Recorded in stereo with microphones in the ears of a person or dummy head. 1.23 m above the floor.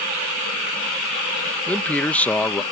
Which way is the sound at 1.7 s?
10° left (ahead or behind).